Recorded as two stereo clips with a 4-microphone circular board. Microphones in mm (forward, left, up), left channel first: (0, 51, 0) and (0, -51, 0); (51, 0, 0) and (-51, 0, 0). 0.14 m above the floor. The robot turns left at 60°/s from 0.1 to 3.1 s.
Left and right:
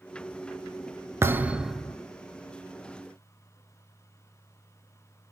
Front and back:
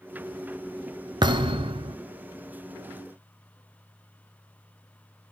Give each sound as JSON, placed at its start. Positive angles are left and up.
{"t": 1.2, "sound": "a thud", "azimuth_deg": -150, "distance_m": 0.6}